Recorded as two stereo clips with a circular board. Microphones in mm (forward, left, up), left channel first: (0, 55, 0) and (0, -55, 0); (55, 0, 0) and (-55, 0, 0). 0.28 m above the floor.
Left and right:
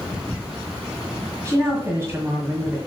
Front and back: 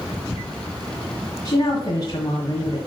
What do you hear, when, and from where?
1.4 s a woman speaking: 35° right, 1.6 m